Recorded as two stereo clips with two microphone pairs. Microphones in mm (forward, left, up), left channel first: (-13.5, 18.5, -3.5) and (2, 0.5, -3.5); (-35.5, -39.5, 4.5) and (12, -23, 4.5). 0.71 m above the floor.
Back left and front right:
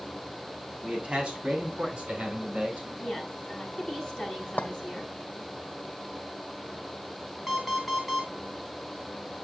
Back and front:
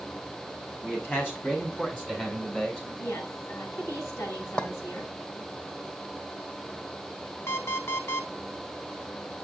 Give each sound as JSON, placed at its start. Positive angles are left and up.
{"t": 0.8, "sound": "a man speaking", "azimuth_deg": -115, "distance_m": 5.5}
{"t": 3.0, "sound": "a woman speaking", "azimuth_deg": -165, "distance_m": 5.0}
{"t": 4.6, "sound": "a clink", "azimuth_deg": 135, "distance_m": 1.3}
{"t": 7.5, "sound": "an alarm clock", "azimuth_deg": -135, "distance_m": 3.0}